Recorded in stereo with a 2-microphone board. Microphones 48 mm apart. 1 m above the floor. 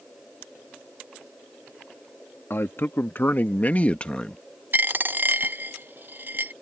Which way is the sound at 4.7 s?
45° right (ahead or behind).